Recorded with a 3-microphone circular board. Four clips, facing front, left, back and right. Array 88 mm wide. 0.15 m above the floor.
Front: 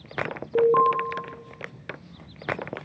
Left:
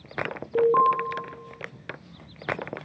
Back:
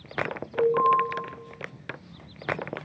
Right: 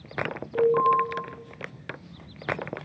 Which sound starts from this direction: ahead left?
An alarm, at 0.6 s.